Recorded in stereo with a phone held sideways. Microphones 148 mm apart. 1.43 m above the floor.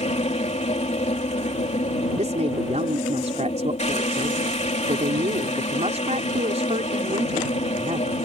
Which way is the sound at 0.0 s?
50° left (ahead or behind).